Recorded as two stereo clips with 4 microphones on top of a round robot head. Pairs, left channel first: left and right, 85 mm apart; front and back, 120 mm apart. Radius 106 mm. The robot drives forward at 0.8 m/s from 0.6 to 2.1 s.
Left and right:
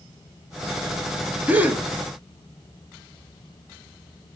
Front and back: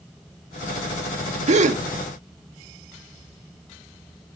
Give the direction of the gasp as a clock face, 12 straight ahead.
5 o'clock.